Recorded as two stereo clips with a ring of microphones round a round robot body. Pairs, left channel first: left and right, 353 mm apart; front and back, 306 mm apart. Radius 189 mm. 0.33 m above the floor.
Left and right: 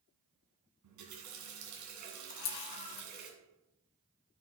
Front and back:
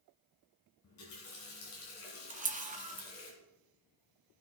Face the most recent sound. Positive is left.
turn(degrees=115)